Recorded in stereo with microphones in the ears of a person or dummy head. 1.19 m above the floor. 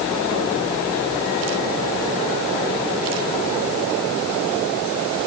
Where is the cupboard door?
I don't hear a cupboard door.